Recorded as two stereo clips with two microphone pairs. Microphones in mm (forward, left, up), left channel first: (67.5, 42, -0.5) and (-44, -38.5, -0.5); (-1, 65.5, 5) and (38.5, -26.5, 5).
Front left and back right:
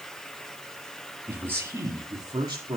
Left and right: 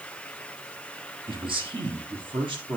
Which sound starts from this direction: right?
A man speaking, at 1.3 s.